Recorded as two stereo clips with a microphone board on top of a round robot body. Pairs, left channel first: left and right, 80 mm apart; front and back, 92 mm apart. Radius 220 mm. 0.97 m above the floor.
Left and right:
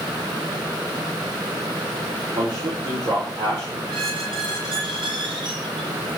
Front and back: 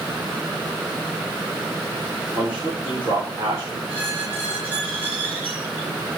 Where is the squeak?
105° right, 3 m.